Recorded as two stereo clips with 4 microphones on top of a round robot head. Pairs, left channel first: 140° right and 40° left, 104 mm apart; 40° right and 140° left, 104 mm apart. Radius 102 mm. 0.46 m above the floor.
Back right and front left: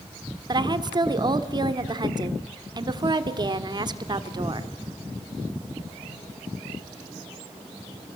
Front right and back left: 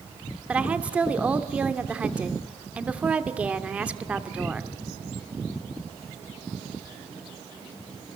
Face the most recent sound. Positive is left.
turn(degrees=65)